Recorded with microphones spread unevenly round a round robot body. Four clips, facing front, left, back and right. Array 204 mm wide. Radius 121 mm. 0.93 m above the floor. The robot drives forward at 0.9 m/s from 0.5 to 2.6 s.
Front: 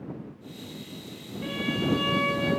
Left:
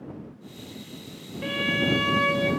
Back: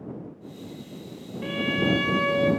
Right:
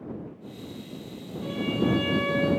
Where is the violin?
90° left, 0.9 m; by 2.5 s 135° left, 1.3 m.